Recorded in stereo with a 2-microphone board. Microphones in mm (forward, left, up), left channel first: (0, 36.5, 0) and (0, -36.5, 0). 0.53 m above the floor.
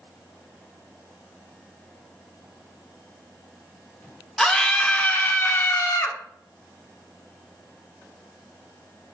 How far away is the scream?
About 1.7 m.